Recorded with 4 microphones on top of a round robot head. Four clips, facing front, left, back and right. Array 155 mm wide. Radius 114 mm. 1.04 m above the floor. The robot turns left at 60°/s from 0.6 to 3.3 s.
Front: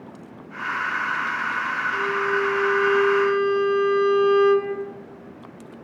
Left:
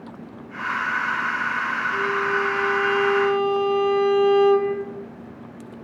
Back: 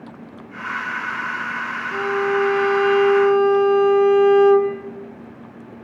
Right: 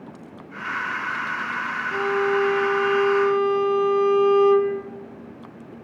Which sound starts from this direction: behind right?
A violin, at 1.9 s.